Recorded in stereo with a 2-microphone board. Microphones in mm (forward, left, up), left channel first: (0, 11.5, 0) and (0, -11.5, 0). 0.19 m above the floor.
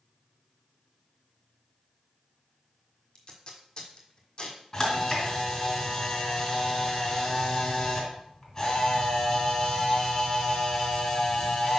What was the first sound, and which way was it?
Tape being pulled, 40° left (ahead or behind).